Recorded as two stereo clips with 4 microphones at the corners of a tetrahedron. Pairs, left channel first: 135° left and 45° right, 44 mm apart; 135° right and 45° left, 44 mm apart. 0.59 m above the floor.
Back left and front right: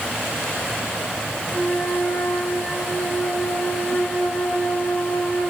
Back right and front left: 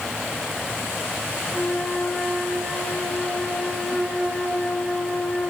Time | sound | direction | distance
1.5 | a flute | 165° left | 9 m